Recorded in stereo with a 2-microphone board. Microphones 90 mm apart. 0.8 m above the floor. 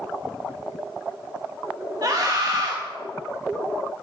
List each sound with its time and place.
2.0 s a scream: 45° right (ahead or behind), 0.9 m